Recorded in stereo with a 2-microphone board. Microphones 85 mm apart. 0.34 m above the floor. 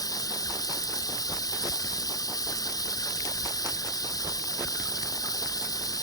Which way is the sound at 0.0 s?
45° left (ahead or behind).